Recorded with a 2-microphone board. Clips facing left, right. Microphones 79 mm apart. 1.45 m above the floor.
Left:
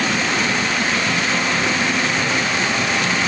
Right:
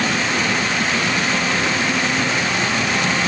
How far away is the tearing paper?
I don't hear tearing paper.